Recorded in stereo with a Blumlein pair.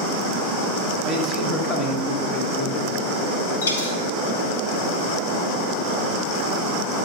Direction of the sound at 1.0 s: 20° left.